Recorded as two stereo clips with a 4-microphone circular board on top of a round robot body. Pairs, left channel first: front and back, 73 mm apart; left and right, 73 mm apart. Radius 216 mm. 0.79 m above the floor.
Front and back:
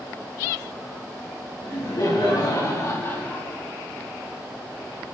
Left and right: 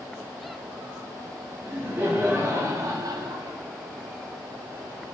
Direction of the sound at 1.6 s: 25° right.